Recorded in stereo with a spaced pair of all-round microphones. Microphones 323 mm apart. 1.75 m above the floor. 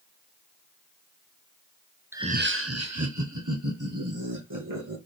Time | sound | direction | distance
2.1 | laughter | 5° right (ahead or behind) | 0.5 m